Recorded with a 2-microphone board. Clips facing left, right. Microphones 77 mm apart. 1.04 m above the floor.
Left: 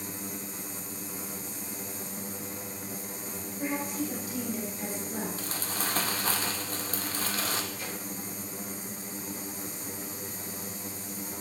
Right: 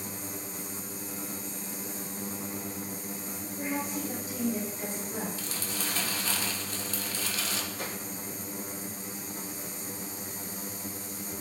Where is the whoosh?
70° right (ahead or behind), 2 m.